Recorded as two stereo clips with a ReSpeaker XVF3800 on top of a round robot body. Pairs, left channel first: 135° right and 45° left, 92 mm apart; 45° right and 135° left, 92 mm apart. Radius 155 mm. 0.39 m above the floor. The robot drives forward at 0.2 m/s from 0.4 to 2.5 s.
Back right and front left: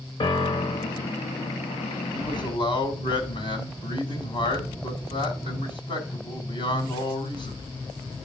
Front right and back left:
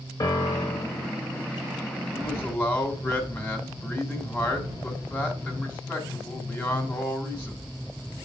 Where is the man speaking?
115° right, 3 m.